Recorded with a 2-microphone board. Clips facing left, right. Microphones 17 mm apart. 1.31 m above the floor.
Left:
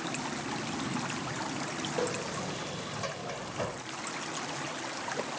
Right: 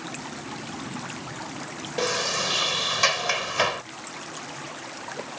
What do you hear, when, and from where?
2.0 s a sliding door: 85° right